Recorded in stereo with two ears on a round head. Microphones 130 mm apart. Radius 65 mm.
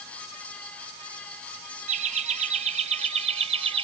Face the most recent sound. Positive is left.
turn(degrees=-40)  # may be behind; listen again after turning